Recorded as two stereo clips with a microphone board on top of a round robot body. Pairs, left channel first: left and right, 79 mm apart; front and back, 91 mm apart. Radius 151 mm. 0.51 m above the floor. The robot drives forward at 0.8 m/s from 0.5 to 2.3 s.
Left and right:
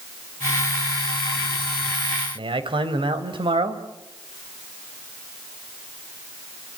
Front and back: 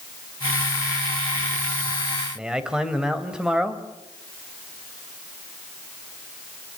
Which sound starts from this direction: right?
A man speaking, at 2.4 s.